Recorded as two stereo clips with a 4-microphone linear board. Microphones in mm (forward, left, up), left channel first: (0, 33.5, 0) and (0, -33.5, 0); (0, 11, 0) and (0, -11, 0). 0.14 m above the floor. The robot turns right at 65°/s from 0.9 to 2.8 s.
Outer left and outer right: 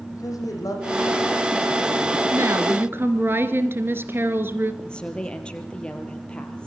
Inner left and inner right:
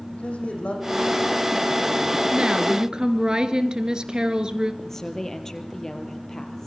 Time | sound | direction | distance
0.1 | a man speaking | 115° left | 7.5 m
2.3 | a woman speaking | 80° right | 1.9 m
4.8 | a woman speaking | 15° left (ahead or behind) | 3.5 m